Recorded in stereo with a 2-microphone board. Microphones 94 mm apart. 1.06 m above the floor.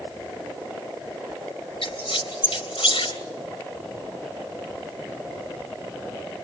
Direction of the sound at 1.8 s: 85° left.